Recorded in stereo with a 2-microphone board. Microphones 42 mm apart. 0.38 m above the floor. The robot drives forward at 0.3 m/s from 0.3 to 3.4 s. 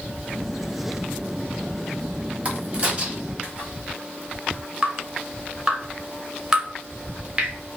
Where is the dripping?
15° right (ahead or behind), 1.1 m.